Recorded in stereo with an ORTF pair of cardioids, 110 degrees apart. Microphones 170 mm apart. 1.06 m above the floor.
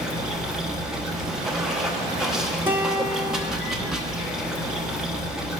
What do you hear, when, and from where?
0.0 s running water: 5° right, 1.0 m
2.7 s a guitar: 15° right, 1.2 m